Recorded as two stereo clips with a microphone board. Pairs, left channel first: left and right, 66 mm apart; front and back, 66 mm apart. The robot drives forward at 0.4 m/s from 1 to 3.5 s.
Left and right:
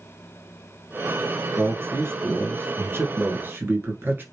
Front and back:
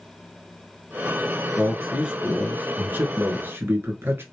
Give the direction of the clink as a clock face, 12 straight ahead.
I don't hear a clink.